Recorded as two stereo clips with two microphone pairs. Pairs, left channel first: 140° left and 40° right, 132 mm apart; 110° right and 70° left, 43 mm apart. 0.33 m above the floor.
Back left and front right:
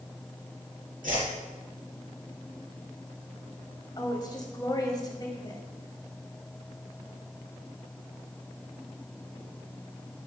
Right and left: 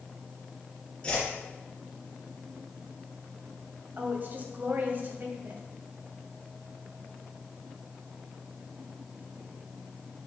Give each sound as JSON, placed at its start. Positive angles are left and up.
{"t": 1.0, "sound": "a whoosh", "azimuth_deg": -45, "distance_m": 4.0}
{"t": 4.0, "sound": "a woman speaking", "azimuth_deg": 90, "distance_m": 1.9}